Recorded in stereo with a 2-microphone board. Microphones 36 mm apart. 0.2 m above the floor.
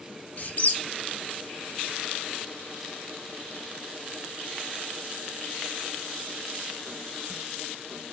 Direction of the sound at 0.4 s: 45° left (ahead or behind).